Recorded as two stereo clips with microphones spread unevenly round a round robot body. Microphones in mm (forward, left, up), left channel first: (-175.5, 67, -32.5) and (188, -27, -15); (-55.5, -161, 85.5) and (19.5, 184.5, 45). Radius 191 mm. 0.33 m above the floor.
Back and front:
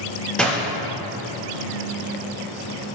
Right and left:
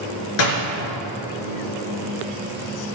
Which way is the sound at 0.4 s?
105° right.